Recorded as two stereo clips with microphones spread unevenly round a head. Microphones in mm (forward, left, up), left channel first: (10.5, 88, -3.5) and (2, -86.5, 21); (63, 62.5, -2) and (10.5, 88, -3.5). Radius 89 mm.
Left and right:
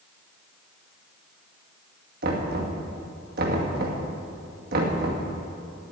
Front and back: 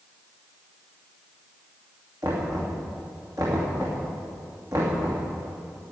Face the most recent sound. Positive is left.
turn(degrees=-135)